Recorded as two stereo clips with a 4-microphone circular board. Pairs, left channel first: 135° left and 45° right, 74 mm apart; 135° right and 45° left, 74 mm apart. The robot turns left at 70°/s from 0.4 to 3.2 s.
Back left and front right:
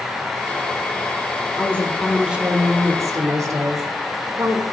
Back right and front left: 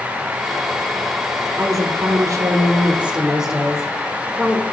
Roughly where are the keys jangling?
No keys jangling in this recording.